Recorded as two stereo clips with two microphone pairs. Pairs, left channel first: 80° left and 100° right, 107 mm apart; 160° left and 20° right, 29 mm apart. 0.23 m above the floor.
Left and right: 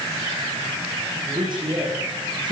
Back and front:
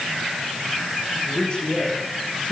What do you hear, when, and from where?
1.3 s a man speaking: 145° right, 10 m